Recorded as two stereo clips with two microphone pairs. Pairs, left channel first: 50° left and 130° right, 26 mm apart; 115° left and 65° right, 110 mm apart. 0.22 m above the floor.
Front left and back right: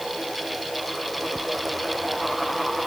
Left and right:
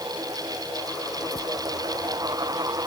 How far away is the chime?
No chime in this recording.